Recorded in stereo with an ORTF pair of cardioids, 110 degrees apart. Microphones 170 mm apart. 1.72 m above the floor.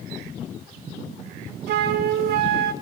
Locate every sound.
1.7 s a flute: 70° right, 1.4 m